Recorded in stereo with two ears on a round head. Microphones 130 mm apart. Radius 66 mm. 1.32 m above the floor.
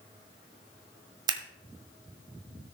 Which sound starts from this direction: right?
Scissors, at 1.3 s.